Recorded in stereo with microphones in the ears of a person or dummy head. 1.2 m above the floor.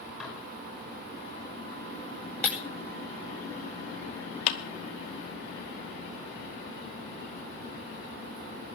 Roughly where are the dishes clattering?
Centre.